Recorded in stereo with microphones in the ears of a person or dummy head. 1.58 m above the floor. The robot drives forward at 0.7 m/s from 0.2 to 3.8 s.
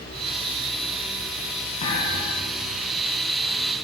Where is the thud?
45° left (ahead or behind), 7.5 m; by 2.5 s 40° left (ahead or behind), 8 m.